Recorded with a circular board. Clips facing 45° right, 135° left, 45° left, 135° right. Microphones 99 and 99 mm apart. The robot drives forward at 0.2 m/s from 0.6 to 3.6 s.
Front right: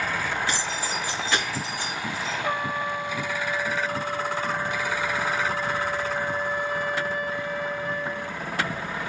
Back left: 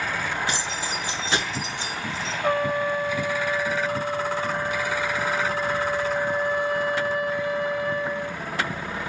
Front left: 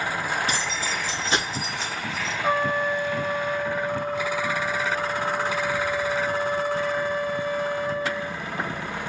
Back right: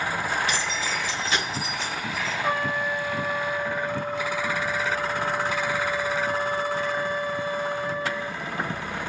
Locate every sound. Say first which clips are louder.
0.5 s keys jangling: even, even; 70° left, 1.4 m; by 2.3 s 90° left, 1.4 m
2.4 s a trumpet: back left 7 dB, front left 4 dB; 120° left, 0.7 m; by 8.4 s 135° left, 0.9 m